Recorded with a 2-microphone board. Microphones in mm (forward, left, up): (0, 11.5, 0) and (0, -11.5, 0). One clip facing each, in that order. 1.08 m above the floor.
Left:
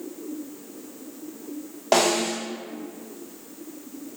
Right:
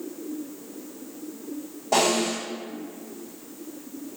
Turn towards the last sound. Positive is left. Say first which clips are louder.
# left 1 dB
turn(degrees=60)  # may be behind; listen again after turning